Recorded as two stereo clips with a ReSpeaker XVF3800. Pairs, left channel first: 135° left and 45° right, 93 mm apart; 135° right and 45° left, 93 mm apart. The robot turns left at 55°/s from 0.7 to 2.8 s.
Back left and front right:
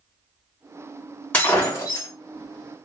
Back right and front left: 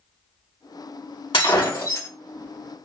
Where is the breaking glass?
150° right, 1.7 m; by 2.1 s 170° left, 1.7 m.